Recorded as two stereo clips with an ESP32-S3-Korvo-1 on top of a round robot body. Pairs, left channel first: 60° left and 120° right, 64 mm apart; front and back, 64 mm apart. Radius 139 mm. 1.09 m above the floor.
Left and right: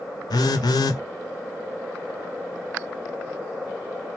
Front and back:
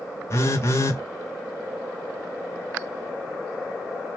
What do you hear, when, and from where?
0.3 s a phone buzzing: 50° left, 0.7 m